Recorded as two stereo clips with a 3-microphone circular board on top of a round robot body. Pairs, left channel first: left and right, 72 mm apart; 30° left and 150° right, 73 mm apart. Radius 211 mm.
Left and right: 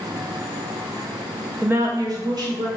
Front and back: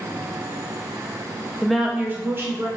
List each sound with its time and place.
1.6 s a woman speaking: 40° right, 0.7 m; by 2.7 s 95° right, 1.5 m